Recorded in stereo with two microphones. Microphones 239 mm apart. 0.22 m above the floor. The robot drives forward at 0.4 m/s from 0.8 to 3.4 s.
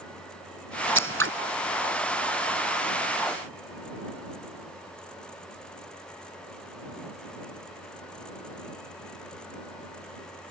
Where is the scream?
I don't hear a scream.